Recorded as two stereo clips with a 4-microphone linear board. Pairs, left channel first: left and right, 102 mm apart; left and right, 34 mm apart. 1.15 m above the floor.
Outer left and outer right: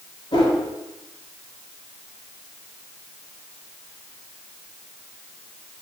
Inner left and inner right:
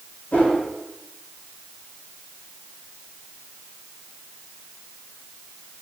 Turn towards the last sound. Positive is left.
turn(degrees=55)  # may be behind; listen again after turning